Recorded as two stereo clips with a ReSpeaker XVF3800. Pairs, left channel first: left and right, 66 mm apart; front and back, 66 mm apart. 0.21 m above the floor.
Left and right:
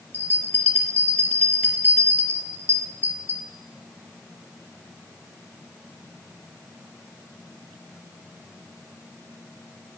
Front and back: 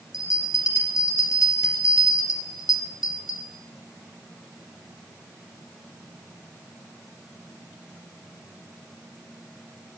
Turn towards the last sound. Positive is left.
turn(degrees=30)